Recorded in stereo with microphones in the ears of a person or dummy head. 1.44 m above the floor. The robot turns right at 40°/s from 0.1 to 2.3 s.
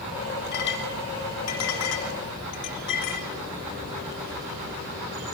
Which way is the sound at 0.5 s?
50° left (ahead or behind).